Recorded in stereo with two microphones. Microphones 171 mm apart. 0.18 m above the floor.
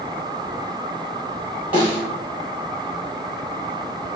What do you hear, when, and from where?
1.7 s a snare drum: 30° left (ahead or behind), 2.0 m